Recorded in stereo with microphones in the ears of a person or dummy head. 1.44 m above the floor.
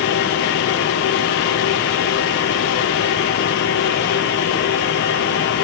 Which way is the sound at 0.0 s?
55° left (ahead or behind).